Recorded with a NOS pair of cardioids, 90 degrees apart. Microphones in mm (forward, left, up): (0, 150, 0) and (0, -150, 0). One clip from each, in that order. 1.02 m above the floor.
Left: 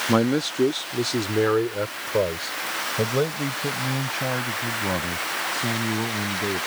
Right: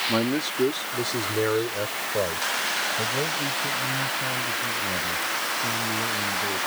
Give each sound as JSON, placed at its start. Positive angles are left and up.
{"t": 0.1, "sound": "a man speaking", "azimuth_deg": 65}